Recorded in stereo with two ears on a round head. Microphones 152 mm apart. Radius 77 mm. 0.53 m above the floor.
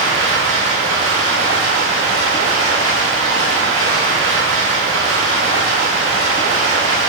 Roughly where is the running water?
Right.